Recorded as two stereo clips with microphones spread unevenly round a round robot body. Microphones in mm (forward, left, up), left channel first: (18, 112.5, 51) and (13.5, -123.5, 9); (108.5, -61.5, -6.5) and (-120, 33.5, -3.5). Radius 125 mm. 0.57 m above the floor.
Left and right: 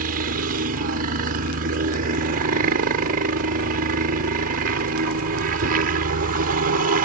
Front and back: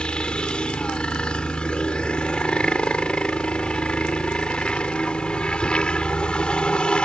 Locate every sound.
0.0 s a helicopter: 105° right